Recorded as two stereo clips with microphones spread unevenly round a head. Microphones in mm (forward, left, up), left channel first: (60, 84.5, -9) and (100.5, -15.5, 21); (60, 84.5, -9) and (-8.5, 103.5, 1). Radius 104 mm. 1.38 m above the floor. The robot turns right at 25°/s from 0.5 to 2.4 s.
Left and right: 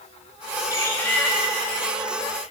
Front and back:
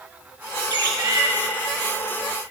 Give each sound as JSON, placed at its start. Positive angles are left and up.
{"t": 0.7, "sound": "a bird", "azimuth_deg": -170, "distance_m": 1.7}